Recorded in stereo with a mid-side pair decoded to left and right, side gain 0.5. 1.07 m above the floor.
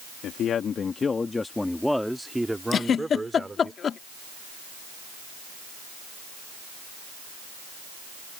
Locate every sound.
0.2 s a man speaking: 65° left; by 3.7 s 20° right
2.7 s a giggle: 45° left